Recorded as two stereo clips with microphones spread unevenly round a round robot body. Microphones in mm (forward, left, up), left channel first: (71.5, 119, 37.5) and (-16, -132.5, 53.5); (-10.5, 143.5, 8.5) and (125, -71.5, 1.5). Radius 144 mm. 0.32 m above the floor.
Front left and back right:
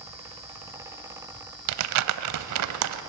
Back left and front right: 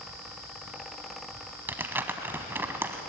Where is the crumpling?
140° right, 0.9 m.